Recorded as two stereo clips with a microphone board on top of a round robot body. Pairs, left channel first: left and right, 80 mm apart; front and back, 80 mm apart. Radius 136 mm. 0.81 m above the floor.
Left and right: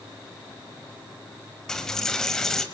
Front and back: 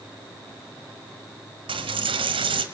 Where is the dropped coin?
175° left, 1.7 m.